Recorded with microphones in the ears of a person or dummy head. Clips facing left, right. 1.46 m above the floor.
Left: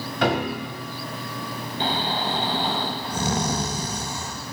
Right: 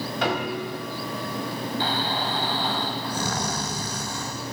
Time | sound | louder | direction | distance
0.2 | a piano | left 4 dB | 55° left (ahead or behind) | 2.5 m
1.8 | snoring | left 4 dB | 20° left (ahead or behind) | 1.1 m